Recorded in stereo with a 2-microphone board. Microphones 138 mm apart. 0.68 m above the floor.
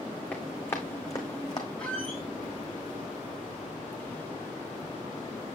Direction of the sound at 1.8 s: 5° left (ahead or behind).